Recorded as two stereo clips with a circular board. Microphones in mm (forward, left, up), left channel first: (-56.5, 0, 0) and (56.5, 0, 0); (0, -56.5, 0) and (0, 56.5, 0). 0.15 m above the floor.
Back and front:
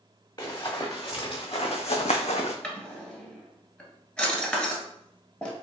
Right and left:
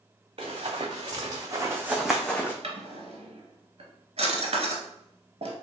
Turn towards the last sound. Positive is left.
turn(degrees=100)